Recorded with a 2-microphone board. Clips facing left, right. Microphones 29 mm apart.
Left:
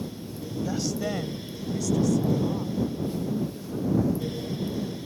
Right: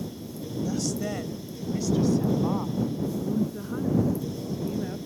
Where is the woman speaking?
30° left (ahead or behind); by 5.0 s 55° right (ahead or behind).